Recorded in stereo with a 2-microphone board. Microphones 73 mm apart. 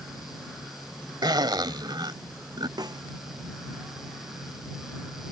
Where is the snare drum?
65° right (ahead or behind).